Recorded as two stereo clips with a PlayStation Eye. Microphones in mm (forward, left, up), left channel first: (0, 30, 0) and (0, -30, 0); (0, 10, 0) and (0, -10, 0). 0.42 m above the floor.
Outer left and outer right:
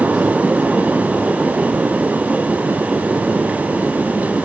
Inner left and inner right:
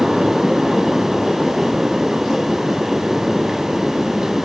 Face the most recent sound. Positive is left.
No sound to turn to.